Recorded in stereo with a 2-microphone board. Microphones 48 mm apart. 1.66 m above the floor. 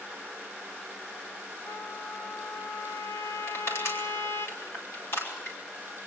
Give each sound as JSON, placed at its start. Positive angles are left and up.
{"t": 1.7, "sound": "a trumpet", "side_deg": 60, "distance_m": 1.5}
{"t": 3.5, "sound": "crushing", "side_deg": 65, "distance_m": 9.5}